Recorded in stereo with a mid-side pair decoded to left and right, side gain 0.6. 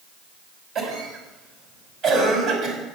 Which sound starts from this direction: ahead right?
A cough, at 0.8 s.